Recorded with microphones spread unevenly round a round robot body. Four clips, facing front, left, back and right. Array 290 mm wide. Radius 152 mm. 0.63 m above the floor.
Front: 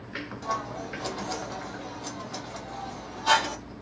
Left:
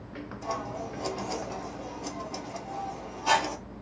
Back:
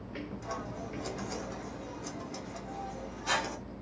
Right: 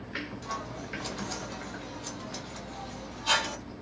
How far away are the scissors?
About 1.2 m.